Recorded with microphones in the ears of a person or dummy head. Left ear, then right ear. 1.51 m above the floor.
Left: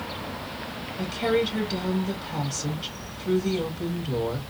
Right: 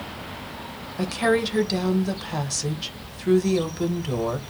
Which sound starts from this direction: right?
A woman speaking, at 1.0 s.